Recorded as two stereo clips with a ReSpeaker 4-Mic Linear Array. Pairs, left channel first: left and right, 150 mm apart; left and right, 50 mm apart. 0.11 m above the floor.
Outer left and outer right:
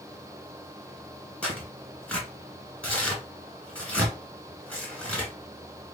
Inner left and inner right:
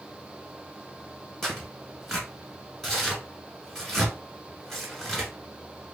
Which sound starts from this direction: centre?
Tearing paper, at 1.4 s.